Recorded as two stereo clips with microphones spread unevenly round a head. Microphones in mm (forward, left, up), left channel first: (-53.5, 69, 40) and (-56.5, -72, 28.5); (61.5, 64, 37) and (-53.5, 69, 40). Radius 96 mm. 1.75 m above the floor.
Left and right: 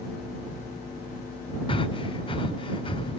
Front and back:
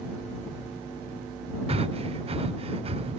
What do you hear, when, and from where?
1.7 s breathing: 145° left